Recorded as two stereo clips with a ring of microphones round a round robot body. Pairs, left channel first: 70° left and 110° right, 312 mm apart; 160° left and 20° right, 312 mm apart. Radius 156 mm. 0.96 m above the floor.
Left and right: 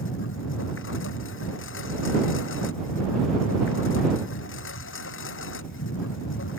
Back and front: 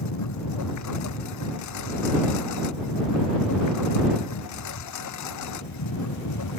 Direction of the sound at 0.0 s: 120° left.